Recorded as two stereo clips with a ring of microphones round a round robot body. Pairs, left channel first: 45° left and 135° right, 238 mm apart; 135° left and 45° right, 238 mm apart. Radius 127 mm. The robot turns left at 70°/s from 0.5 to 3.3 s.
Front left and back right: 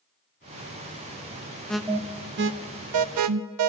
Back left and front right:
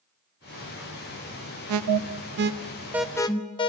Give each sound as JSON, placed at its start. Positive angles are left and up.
{"t": 1.7, "sound": "an alarm", "azimuth_deg": -40, "distance_m": 0.8}